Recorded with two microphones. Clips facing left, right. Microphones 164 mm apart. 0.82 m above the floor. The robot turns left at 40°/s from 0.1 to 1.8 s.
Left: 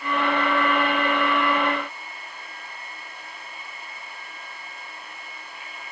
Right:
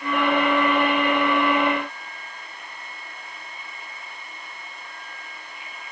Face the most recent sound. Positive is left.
No sound to turn to.